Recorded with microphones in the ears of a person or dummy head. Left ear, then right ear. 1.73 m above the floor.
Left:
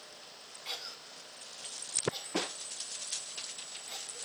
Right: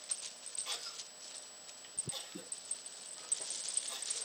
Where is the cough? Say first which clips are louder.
Left 3 dB; 20° left (ahead or behind), 4.5 m.